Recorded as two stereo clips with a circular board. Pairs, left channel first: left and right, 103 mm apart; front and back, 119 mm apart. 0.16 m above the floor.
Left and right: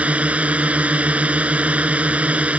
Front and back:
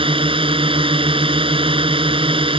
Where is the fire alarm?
I don't hear a fire alarm.